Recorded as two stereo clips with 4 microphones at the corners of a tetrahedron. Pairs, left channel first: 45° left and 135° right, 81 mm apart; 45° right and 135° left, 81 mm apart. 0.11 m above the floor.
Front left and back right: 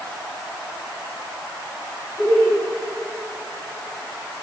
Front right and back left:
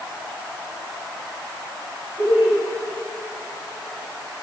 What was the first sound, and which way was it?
Laughter, 100° left.